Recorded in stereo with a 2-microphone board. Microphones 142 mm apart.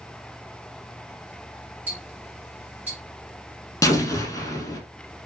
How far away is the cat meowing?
No cat meowing in this recording.